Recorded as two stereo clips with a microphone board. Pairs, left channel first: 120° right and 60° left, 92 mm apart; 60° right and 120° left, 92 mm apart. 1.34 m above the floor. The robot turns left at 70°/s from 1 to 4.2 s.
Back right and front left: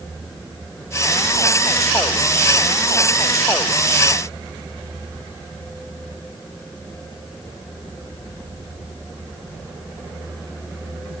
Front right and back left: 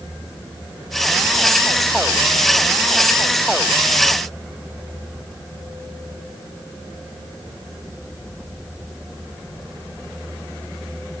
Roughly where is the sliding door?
No sliding door in this recording.